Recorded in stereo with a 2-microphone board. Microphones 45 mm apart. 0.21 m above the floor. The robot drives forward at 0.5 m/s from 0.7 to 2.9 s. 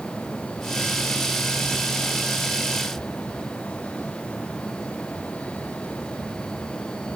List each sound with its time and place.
Only background noise.